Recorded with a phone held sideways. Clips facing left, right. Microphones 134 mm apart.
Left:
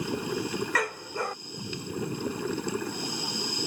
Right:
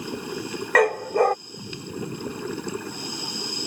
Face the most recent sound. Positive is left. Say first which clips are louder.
# right 12 dB
turn(degrees=-75)  # may be behind; listen again after turning